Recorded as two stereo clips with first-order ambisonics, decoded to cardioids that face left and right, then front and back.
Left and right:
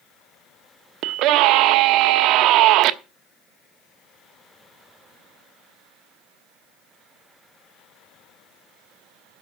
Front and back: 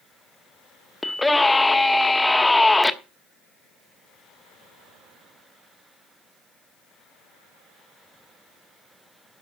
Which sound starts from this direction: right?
A scream, at 1.0 s.